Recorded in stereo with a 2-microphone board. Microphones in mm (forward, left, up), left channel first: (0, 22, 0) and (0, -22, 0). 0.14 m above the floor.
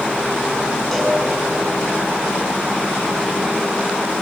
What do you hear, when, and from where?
0.9 s a cowbell: 10° left (ahead or behind), 10 m